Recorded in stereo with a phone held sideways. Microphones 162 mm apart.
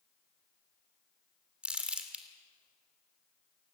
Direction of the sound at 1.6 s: 5° right (ahead or behind).